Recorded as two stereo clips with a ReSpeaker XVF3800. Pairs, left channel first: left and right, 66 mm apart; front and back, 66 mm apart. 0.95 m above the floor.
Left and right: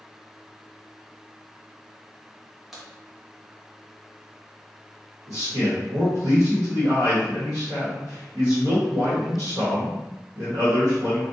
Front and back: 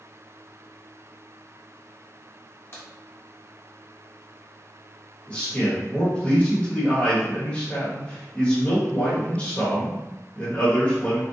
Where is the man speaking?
65° right, 1.3 m.